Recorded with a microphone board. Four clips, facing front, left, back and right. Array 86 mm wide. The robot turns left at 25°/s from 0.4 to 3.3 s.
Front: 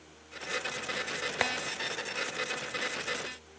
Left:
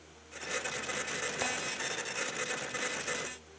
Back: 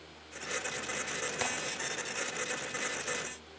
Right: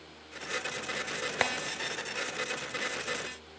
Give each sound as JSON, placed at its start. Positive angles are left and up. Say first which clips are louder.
{"t": 1.4, "sound": "tapping", "louder": "right 6 dB, front 5 dB", "azimuth_deg": -60, "distance_m": 0.8}